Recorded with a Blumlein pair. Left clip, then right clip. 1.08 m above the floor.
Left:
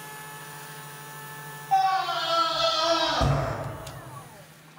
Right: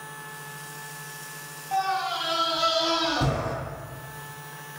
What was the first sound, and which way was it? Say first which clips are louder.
A scream: left 3 dB; 5° left.